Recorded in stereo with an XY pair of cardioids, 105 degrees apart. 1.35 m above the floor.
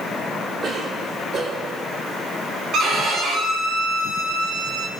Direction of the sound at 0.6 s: 50° right.